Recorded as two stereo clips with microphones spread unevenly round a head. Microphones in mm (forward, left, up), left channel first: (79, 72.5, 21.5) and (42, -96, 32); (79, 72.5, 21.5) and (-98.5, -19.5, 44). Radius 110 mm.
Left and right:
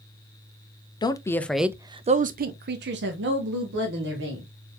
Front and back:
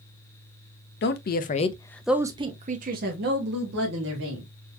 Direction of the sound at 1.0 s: 15° left.